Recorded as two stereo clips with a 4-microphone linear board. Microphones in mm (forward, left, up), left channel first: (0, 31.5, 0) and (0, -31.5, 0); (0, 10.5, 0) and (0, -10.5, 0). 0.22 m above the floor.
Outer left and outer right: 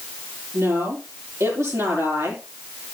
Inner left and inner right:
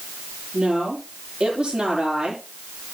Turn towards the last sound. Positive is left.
turn(degrees=-55)  # may be behind; listen again after turning